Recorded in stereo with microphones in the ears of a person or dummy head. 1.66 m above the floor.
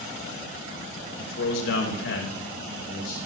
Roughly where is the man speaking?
Left.